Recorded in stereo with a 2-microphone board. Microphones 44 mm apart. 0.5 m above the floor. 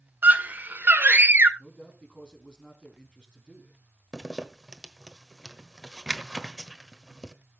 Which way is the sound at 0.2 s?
50° right (ahead or behind).